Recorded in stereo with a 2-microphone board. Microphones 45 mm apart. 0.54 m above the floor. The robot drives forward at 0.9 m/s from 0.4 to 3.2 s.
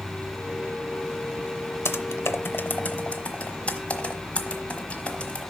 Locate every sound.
0.0 s an insect: 65° left (ahead or behind), 3.5 m
1.9 s typing on a keyboard: 65° left (ahead or behind), 0.6 m; by 5.5 s 30° left (ahead or behind), 1.1 m